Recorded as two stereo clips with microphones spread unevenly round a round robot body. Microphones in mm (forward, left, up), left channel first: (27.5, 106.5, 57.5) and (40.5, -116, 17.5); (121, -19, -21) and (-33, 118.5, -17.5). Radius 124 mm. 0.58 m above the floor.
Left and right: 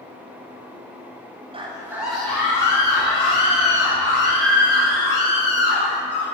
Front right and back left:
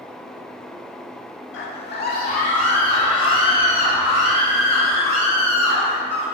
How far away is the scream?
About 1.1 m.